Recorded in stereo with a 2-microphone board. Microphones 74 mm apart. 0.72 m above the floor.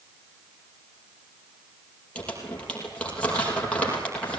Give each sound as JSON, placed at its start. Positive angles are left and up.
{"t": 2.1, "sound": "crumpling", "side_deg": 15, "distance_m": 5.5}